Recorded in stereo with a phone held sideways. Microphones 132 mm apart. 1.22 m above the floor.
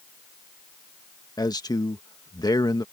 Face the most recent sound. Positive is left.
turn(degrees=30)  # may be behind; listen again after turning